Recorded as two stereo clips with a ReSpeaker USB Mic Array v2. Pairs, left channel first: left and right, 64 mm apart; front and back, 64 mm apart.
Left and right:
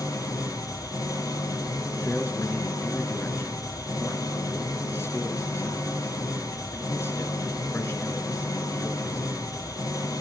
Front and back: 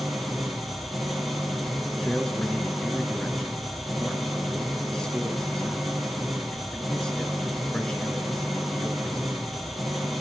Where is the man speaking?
70° left, 2 m.